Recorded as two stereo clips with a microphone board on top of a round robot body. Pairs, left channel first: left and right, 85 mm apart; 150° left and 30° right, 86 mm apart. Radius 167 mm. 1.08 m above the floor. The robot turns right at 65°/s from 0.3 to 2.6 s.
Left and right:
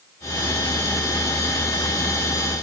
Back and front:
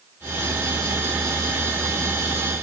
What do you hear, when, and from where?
Only background noise.